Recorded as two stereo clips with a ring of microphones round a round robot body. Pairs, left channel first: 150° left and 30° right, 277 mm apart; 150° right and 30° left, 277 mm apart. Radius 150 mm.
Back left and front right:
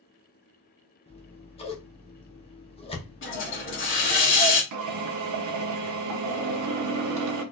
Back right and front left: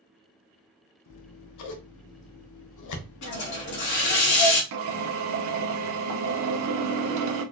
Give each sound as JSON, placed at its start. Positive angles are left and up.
{"t": 1.1, "sound": "scissors", "azimuth_deg": -140, "distance_m": 0.8}
{"t": 3.2, "sound": "a hiss", "azimuth_deg": -165, "distance_m": 1.8}
{"t": 4.7, "sound": "a drill", "azimuth_deg": 0, "distance_m": 0.8}